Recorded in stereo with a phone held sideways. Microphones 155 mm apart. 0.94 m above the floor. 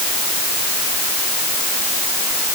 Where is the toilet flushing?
I don't hear a toilet flushing.